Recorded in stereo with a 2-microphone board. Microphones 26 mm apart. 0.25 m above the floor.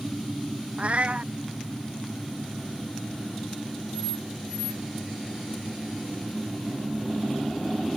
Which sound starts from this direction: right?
A cat meowing, at 0.8 s.